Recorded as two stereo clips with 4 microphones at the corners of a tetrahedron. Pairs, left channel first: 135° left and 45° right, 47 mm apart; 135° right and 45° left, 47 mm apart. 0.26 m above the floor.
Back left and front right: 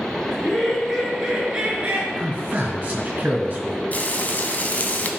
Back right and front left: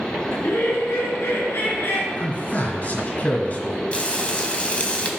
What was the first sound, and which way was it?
Laughter, 140° right.